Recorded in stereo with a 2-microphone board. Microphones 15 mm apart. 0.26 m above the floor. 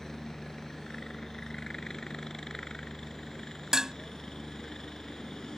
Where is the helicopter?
45° left (ahead or behind); by 5.6 s 55° left (ahead or behind).